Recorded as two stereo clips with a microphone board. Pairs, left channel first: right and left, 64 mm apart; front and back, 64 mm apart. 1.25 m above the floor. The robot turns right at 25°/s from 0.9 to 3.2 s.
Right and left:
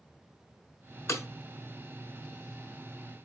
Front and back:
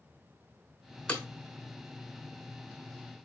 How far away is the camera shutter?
No camera shutter in this recording.